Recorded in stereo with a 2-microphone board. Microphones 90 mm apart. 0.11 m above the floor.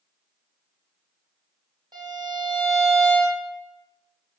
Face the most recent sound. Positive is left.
turn(degrees=-55)  # may be behind; listen again after turning